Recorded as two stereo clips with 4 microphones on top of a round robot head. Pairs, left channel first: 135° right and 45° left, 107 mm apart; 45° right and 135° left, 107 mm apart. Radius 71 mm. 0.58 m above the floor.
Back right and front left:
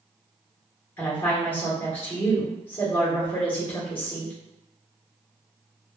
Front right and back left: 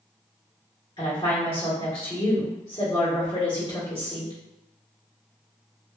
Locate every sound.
1.0 s a woman speaking: 75° right, 1.4 m